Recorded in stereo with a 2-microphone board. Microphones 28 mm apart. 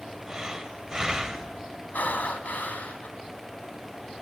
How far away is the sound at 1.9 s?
About 2 m.